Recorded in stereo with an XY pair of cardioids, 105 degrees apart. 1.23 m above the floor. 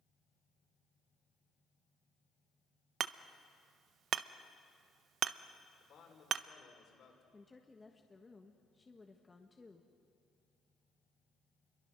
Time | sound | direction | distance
3.0 | hammering | 65° right | 0.6 m
5.8 | a man speaking | 60° left | 5 m
7.3 | a woman speaking | 15° left | 1.6 m